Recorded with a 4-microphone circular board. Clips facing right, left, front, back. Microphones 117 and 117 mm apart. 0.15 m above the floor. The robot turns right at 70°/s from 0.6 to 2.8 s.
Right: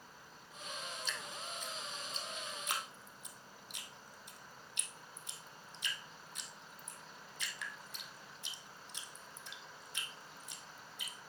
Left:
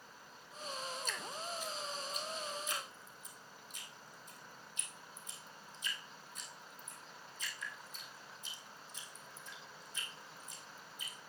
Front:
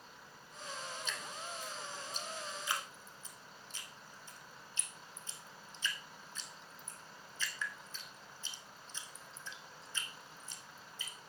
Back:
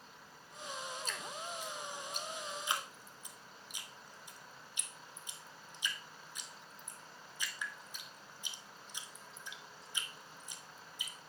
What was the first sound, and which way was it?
Dripping, 130° left.